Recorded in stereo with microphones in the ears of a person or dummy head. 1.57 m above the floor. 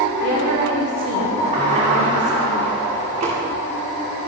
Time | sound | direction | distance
0.2 | a woman speaking | 85° right | 5 m
1.5 | a sliding door | 35° right (ahead or behind) | 2.5 m